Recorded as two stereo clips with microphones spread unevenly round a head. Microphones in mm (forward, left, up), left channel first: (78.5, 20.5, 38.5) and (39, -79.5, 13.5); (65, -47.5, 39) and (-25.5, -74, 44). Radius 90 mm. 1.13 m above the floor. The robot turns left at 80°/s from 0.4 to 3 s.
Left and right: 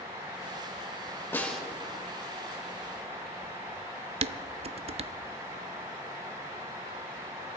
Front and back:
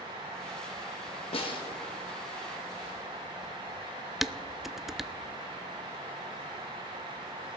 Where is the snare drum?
Straight ahead, 2.5 m; by 1.6 s 20° right, 2.5 m.